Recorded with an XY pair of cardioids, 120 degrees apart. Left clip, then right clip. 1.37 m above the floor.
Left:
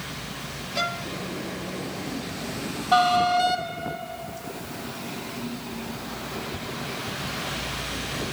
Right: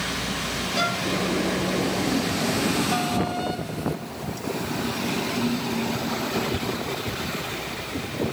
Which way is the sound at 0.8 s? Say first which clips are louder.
Right 2 dB; 5° right.